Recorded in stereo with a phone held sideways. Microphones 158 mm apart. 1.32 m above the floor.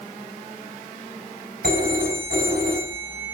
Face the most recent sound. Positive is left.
turn(degrees=-85)